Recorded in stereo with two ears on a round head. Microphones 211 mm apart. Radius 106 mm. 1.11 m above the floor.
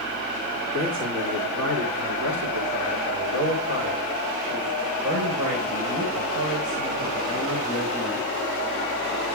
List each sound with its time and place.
0.7 s a man speaking: 75° right (ahead or behind), 2.5 m; by 8.3 s 60° right (ahead or behind), 6 m